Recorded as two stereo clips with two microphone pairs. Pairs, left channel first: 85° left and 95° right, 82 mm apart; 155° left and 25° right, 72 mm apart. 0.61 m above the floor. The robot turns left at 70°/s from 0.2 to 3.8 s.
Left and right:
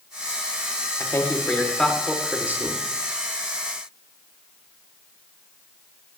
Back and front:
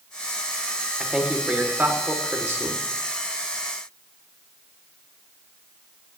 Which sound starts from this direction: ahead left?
A man speaking, at 1.0 s.